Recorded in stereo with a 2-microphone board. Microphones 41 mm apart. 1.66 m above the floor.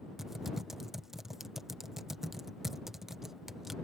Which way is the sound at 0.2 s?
10° right (ahead or behind).